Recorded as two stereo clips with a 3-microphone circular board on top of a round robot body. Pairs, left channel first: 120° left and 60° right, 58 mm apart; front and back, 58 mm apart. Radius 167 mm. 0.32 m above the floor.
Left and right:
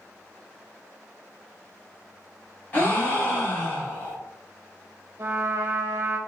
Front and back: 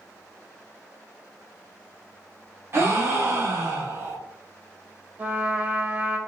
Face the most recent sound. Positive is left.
turn(degrees=-115)